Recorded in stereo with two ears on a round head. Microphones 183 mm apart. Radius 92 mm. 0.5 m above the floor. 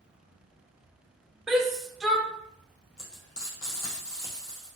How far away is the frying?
About 2.5 m.